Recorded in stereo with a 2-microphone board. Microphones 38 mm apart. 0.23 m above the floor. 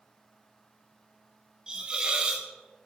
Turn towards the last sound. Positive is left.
turn(degrees=-25)  # may be behind; listen again after turning